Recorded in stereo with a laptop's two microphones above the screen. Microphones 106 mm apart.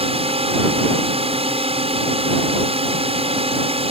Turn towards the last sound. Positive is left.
turn(degrees=-65)  # may be behind; listen again after turning